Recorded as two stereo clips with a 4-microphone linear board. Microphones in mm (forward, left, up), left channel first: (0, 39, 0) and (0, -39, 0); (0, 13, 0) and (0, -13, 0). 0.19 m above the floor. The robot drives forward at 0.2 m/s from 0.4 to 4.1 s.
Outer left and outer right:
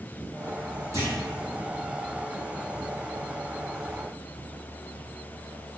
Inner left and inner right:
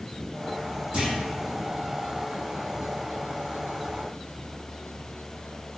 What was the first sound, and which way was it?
A clunk, 40° right (ahead or behind).